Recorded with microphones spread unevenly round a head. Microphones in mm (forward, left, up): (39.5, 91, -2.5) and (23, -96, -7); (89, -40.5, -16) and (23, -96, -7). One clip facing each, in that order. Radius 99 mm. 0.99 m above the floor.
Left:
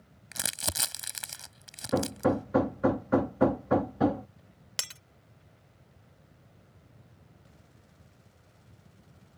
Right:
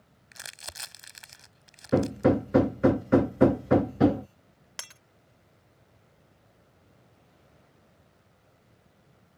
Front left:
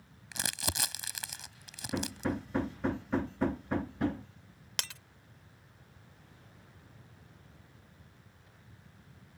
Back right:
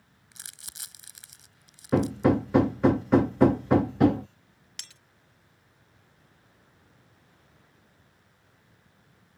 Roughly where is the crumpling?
Ahead left.